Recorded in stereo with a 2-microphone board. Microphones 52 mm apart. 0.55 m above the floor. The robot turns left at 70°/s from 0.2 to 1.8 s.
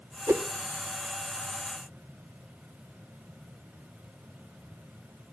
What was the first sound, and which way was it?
A whoosh, 70° right (ahead or behind).